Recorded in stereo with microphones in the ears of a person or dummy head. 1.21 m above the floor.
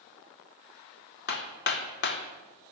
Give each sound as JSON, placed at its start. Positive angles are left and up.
{"t": 1.3, "sound": "hammering", "side_deg": 60, "distance_m": 1.2}